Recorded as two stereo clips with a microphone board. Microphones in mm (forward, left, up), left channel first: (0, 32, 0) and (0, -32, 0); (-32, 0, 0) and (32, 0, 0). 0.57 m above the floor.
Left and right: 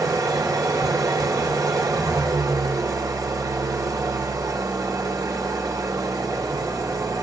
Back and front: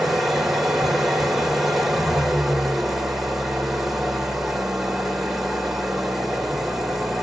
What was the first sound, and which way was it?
An engine running, 85° right.